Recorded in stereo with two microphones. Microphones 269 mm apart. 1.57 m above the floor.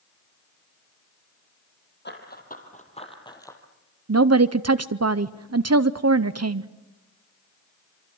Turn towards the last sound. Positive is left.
turn(degrees=-65)  # may be behind; listen again after turning